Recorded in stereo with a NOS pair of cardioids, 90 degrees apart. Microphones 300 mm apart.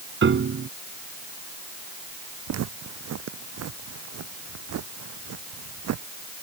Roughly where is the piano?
Ahead right.